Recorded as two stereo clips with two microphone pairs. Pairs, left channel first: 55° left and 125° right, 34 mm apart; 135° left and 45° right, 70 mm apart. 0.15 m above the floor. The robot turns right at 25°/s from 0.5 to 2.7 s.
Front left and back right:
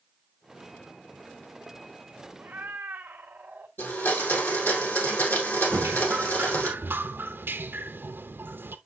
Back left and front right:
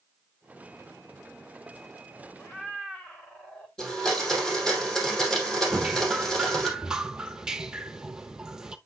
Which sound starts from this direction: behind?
A cat meowing, at 2.4 s.